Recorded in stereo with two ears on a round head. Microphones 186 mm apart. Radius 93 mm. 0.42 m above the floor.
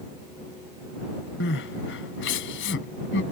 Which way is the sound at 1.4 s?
60° left (ahead or behind).